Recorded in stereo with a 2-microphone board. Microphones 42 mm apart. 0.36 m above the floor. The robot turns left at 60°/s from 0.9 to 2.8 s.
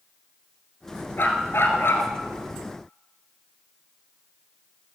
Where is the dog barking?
120° left, 1.7 m; by 2.1 s 65° left, 1.7 m.